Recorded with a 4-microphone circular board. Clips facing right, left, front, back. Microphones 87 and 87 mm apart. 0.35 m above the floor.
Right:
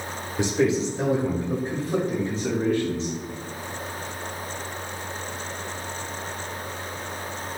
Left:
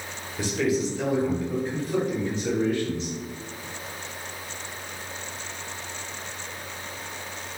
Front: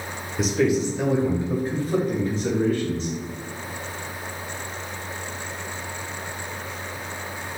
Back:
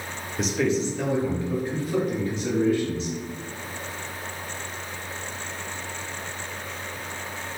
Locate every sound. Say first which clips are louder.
0.4 s a man speaking: right 3 dB, front 3 dB; 90° right, 0.9 m; by 3.1 s 40° right, 1.9 m